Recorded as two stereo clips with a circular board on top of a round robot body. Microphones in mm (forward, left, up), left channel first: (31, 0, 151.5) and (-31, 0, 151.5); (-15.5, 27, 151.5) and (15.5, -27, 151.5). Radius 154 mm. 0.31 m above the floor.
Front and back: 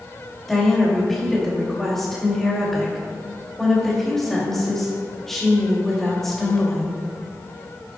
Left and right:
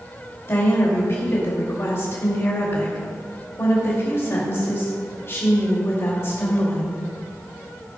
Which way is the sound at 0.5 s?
85° left.